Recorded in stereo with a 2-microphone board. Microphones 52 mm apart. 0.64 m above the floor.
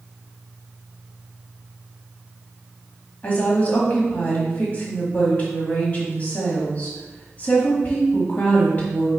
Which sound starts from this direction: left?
A woman speaking, at 3.2 s.